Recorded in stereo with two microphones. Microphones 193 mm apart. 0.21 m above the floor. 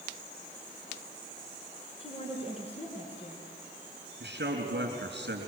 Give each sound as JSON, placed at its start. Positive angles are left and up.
{"t": 2.0, "sound": "a woman speaking", "side_deg": 30, "distance_m": 3.0}
{"t": 4.2, "sound": "a man speaking", "side_deg": -65, "distance_m": 4.0}